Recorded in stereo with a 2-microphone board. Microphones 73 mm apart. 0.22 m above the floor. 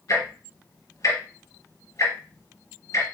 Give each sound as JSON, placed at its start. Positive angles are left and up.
{"t": 0.1, "sound": "ticking", "side_deg": 60, "distance_m": 3.0}